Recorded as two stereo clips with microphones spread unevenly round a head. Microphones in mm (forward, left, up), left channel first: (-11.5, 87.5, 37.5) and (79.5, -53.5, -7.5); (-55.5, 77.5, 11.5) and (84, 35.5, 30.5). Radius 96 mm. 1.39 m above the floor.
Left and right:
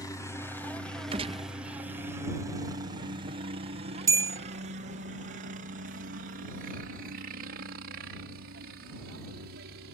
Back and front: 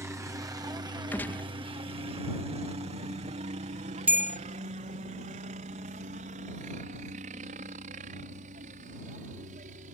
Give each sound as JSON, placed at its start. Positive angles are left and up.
{"t": 0.0, "sound": "a helicopter", "azimuth_deg": 45}
{"t": 1.1, "sound": "a gunshot", "azimuth_deg": -115}
{"t": 4.1, "sound": "a bell", "azimuth_deg": 25}